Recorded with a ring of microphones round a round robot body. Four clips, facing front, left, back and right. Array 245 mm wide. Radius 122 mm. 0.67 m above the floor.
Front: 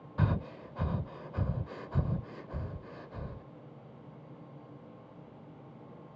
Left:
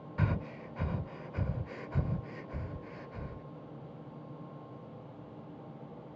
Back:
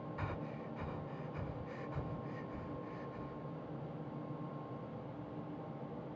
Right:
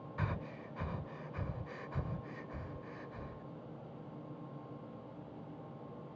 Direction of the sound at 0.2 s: 30° left.